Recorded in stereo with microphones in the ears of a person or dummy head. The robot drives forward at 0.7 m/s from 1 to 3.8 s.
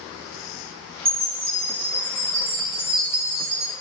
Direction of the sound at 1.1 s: 35° right (ahead or behind).